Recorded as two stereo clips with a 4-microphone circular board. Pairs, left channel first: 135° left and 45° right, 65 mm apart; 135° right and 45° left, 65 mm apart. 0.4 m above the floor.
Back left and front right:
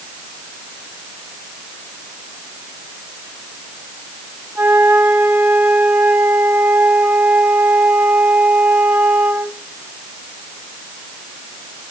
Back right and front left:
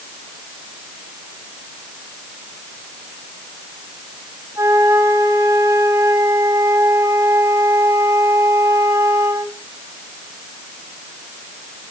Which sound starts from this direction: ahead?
A flute, at 4.5 s.